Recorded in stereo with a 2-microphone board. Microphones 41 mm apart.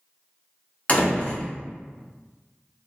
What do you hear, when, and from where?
0.9 s a door slam: 35° left (ahead or behind), 0.9 m